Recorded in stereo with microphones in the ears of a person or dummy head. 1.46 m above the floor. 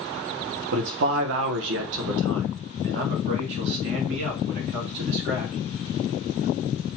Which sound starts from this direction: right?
A man speaking, at 0.7 s.